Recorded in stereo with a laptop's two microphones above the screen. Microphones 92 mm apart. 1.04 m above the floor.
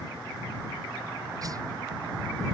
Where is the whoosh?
40° right (ahead or behind).